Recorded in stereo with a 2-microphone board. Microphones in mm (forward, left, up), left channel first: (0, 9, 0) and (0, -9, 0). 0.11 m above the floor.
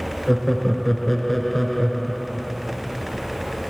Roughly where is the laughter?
Centre.